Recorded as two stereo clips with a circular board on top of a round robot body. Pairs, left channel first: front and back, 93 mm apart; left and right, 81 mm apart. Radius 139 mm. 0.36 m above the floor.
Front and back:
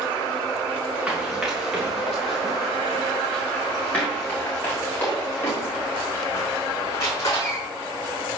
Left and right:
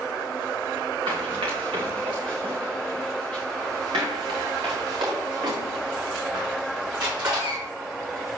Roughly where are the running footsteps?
Right.